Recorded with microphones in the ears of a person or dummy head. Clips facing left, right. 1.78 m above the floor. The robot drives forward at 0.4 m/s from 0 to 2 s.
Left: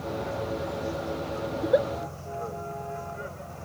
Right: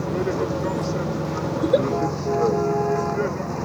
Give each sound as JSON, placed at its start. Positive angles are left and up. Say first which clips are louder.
{"t": 0.0, "sound": "a vehicle", "louder": "right 8 dB", "side_deg": -90}
{"t": 1.6, "sound": "a giggle", "louder": "right 4 dB", "side_deg": -40}